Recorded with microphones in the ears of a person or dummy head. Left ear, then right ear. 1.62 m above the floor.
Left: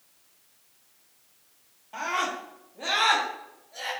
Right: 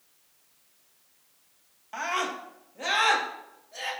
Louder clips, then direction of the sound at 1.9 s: Left 1 dB; 60° right (ahead or behind).